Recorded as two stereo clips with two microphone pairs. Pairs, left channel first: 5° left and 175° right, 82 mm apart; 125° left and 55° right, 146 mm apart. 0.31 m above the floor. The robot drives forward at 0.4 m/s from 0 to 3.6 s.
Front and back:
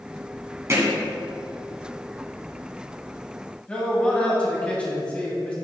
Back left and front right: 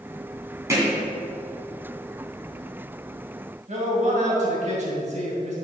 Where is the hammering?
125° right, 2.5 m.